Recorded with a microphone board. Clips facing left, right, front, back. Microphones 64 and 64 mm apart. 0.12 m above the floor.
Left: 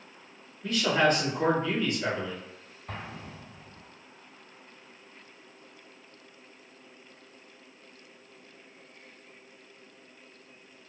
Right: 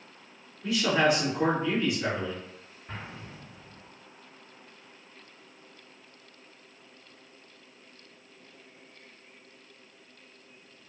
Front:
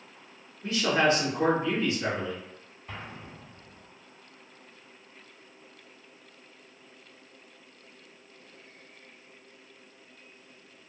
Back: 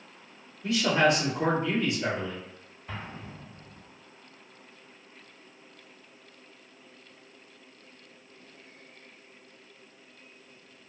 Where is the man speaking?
15° right, 1.8 m.